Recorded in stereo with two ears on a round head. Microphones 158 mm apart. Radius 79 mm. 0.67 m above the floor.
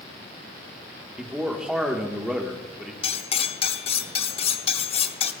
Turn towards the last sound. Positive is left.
turn(degrees=35)  # may be behind; listen again after turning